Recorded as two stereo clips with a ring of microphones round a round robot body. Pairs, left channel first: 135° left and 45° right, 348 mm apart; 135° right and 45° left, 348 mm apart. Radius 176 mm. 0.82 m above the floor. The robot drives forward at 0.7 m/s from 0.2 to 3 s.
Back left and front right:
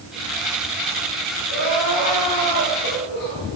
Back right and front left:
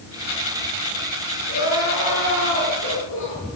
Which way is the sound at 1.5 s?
165° left.